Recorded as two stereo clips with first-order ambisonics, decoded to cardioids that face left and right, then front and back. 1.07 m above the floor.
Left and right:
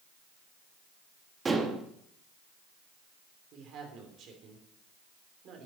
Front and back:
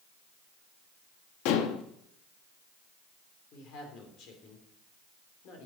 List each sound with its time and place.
1.4 s dishes clattering: 15° right, 1.0 m
3.5 s a woman speaking: 45° right, 3 m